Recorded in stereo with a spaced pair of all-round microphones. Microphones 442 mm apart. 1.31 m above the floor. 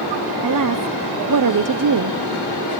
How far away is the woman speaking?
About 0.5 m.